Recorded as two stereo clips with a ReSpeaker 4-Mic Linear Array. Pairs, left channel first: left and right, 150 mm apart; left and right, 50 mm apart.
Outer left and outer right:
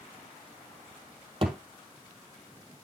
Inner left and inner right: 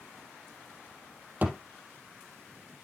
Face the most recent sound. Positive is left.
turn(degrees=-40)  # may be behind; listen again after turning